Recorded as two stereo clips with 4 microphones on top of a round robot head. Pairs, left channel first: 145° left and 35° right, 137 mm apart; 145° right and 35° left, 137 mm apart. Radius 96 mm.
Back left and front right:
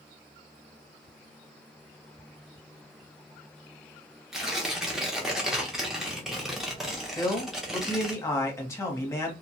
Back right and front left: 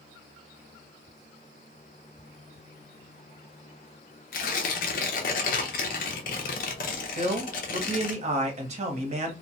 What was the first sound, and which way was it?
Tearing paper, 125° right.